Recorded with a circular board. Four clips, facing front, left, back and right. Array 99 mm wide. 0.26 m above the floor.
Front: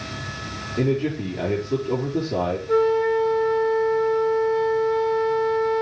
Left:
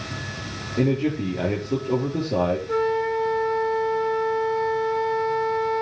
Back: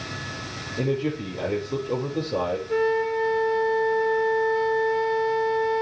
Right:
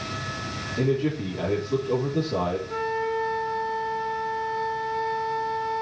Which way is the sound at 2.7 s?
45° left.